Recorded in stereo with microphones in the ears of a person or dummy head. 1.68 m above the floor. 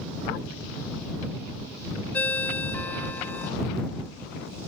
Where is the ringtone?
5° left (ahead or behind).